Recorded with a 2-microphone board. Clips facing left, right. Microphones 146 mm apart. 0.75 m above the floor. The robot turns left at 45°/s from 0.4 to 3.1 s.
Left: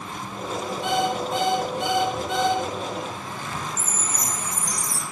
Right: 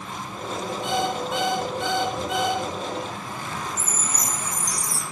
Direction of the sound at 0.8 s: 65° left.